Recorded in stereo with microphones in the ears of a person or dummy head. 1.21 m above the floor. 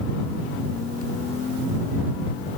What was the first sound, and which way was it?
Only background noise.